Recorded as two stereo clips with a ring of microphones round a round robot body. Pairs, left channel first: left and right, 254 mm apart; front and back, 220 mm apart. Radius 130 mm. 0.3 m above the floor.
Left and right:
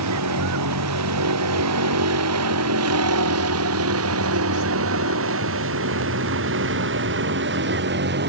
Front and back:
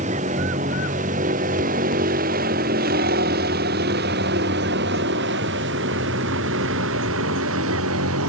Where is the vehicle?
115° right; by 8.3 s 140° right.